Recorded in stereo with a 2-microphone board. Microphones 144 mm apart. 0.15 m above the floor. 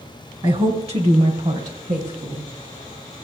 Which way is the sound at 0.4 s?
35° right (ahead or behind).